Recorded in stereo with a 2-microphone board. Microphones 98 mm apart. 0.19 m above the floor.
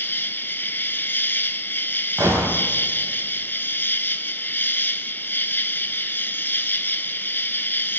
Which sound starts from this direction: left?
An insect, at 0.0 s.